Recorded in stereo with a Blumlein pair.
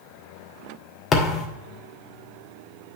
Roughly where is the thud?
Ahead.